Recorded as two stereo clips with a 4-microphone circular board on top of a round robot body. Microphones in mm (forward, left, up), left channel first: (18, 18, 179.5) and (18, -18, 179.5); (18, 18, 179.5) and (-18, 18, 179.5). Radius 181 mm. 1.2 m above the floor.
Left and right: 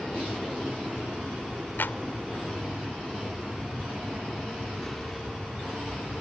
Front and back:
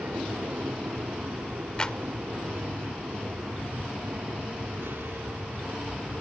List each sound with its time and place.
0.0 s an aircraft: 170° left
1.8 s a clap: 65° left